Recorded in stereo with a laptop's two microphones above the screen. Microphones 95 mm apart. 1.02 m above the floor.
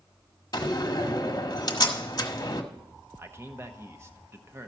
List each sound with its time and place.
0.5 s a door slam: 45° left (ahead or behind), 1.4 m
3.2 s a man speaking: 25° right (ahead or behind), 0.9 m